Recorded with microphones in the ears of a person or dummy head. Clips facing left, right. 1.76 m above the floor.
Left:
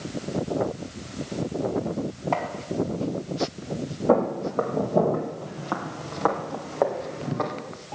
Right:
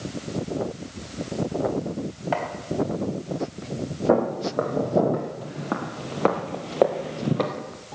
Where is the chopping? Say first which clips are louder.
Right 1 dB; 10° right (ahead or behind), 3 m.